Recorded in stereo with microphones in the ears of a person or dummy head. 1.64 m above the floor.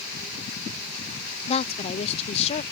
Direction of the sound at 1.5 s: 35° left (ahead or behind).